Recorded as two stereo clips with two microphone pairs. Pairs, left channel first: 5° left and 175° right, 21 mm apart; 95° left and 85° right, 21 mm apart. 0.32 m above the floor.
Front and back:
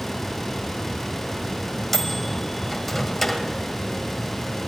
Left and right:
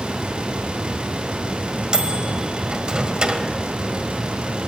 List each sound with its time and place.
1.9 s a microwave: 75° right, 1.6 m